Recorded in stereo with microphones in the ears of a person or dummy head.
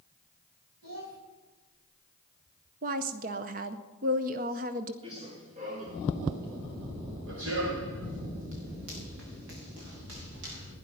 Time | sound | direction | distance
0.8 | a child speaking | 75° right (ahead or behind) | 4.5 m
2.8 | a woman speaking | 40° right (ahead or behind) | 0.7 m
5.0 | running footsteps | 30° right (ahead or behind) | 4.5 m